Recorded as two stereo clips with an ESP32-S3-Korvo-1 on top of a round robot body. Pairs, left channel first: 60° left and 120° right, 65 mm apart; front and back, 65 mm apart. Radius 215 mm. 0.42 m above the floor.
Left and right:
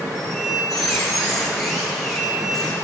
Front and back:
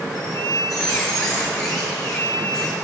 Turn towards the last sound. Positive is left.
turn(degrees=-25)